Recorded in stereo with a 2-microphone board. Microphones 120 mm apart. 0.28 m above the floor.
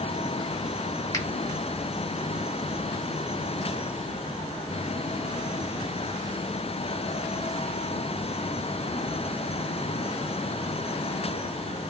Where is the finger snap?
30° left (ahead or behind), 1.2 m.